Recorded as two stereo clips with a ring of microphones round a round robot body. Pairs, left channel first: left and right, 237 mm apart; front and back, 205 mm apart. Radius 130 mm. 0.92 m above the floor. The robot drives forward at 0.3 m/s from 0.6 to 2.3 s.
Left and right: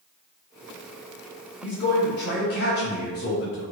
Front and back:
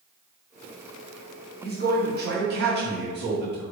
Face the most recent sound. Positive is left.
turn(degrees=140)